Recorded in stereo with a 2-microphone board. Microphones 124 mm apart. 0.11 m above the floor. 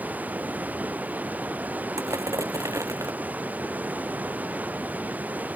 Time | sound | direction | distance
0.0 | running water | 10° right (ahead or behind) | ?
2.0 | crushing | 25° right (ahead or behind) | ?